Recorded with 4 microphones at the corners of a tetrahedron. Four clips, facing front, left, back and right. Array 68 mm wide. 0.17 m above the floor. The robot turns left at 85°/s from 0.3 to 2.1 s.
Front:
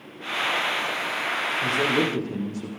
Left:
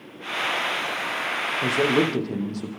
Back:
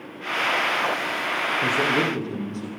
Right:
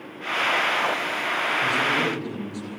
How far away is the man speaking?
About 6.5 m.